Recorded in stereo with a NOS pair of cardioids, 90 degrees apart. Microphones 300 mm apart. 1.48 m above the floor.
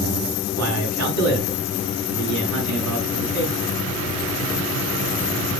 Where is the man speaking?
65° right, 7 m.